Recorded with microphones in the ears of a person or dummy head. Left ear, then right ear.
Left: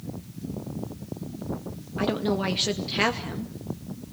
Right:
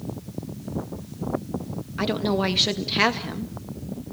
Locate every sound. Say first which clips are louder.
2.0 s a woman speaking: right 2 dB; 15° right (ahead or behind), 2 m